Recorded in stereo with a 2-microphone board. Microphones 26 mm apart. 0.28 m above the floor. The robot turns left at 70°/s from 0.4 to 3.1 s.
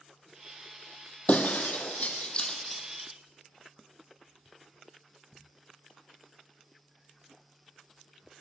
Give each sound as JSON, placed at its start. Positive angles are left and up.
{"t": 1.3, "sound": "breaking glass", "side_deg": 65, "distance_m": 2.5}